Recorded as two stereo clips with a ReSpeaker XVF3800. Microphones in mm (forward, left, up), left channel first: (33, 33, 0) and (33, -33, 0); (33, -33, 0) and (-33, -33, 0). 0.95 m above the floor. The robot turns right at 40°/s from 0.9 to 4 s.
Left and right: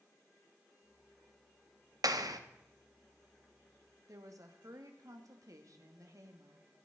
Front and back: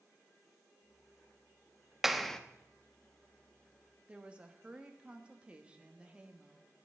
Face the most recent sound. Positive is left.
turn(degrees=-105)